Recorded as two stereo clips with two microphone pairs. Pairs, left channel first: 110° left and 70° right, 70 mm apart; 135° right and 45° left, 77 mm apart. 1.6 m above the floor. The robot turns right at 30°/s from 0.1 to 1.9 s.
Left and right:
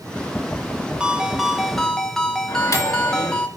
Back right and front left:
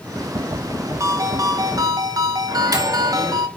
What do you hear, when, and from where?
1.0 s a ringtone: 5° left, 0.7 m; by 3.5 s 35° left, 0.7 m
2.5 s a microwave: 80° left, 2 m